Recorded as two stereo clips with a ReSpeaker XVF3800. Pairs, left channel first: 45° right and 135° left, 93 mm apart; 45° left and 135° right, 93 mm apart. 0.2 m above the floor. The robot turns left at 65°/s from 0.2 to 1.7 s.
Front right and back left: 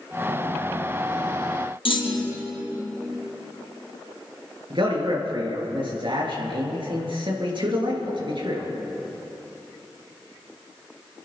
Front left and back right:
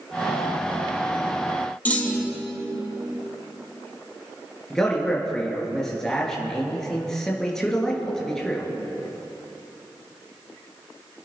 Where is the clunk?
30° right, 2.5 m.